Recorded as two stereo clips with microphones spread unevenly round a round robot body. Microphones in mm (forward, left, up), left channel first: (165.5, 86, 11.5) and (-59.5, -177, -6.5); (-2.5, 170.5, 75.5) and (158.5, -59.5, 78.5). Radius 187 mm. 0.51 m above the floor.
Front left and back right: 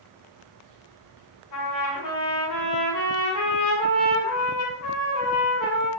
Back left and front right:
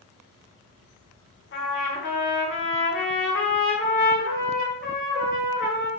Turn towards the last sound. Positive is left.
turn(degrees=85)